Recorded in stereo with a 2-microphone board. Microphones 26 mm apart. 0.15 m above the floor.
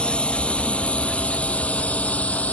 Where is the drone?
45° left (ahead or behind); by 2.5 s 65° left (ahead or behind).